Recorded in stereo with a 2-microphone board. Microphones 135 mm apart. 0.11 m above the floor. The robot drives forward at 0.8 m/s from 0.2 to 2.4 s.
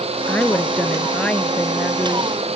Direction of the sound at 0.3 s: 10° left (ahead or behind).